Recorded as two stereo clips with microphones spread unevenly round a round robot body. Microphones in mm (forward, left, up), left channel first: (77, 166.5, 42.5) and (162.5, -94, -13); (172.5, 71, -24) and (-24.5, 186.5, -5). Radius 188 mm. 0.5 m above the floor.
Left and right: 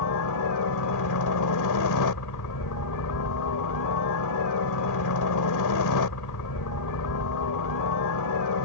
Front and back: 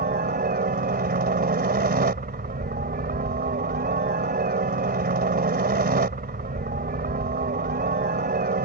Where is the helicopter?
105° left.